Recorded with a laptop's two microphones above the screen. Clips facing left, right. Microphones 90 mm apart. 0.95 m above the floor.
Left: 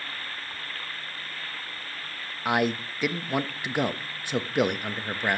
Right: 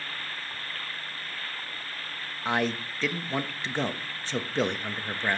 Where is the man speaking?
15° left (ahead or behind), 1.2 m.